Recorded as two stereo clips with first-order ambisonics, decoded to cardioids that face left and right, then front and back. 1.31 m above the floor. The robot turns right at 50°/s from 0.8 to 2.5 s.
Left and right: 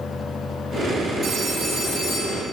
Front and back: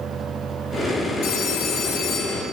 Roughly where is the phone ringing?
Ahead.